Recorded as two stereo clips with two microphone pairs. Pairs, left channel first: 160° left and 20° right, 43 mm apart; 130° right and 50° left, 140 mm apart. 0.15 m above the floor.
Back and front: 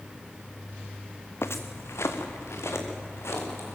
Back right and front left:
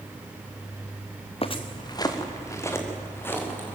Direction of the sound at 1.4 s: Straight behind.